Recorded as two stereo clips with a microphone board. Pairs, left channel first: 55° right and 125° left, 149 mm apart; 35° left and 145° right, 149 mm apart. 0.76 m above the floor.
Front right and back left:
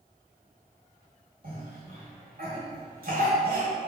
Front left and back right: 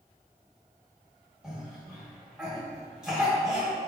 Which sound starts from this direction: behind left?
A cough, at 1.4 s.